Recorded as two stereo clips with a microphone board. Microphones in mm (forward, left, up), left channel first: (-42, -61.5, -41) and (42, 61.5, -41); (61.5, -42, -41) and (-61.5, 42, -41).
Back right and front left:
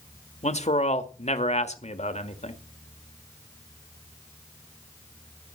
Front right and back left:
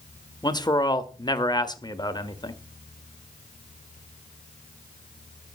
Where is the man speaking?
95° right, 1.6 m.